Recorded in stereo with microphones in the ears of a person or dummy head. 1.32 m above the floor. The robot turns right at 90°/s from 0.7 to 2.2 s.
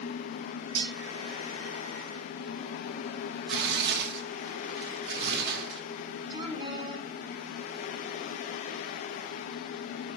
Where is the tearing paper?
65° right (ahead or behind), 0.9 m.